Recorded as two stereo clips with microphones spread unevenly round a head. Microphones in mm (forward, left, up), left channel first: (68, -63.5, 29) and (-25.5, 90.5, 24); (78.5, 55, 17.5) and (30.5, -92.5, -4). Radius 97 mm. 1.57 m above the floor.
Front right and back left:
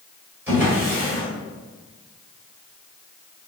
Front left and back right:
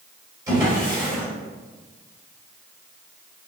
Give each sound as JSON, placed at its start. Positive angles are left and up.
{"t": 0.5, "sound": "a drawer", "azimuth_deg": -170, "distance_m": 1.4}